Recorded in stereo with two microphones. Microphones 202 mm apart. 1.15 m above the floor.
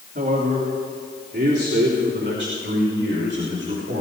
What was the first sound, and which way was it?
A man speaking, 60° right (ahead or behind).